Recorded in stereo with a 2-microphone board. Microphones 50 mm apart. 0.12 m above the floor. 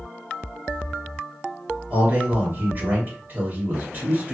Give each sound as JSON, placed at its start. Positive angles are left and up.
{"t": 1.9, "sound": "a man speaking", "side_deg": -40, "distance_m": 1.8}